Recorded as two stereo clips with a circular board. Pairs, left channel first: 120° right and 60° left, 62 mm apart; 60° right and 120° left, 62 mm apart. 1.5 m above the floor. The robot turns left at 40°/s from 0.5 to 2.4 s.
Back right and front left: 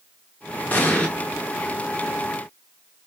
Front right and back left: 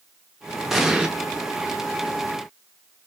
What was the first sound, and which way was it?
An explosion, 155° right.